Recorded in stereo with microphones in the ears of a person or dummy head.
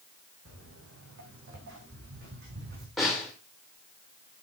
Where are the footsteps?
75° right (ahead or behind), 4.5 m; by 2.9 s 50° right (ahead or behind), 4.5 m.